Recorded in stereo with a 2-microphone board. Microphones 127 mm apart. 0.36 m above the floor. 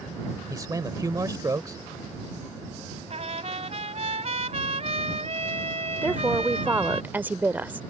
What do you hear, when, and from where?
0.5 s a man speaking: 25° right (ahead or behind)
3.1 s a trumpet: 55° right (ahead or behind)
6.0 s a woman speaking: 15° right (ahead or behind)